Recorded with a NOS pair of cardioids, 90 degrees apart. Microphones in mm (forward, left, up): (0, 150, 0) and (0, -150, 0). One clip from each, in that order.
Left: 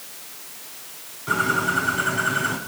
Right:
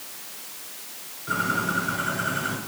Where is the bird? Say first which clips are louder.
Left 4 dB; 55° left, 4.5 m.